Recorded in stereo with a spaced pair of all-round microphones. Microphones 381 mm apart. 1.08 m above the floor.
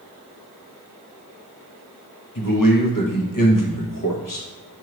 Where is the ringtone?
No ringtone in this recording.